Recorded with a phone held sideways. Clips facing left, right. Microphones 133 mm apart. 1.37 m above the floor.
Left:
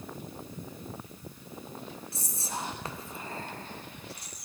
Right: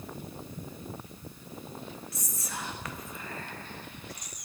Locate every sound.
2.1 s whispering: 30° left (ahead or behind), 0.8 m